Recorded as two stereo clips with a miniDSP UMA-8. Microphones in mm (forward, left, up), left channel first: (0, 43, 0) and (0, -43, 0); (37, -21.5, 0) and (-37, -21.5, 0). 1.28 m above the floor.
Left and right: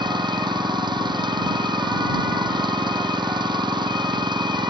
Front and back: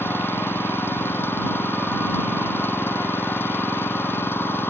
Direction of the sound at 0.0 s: 60° right.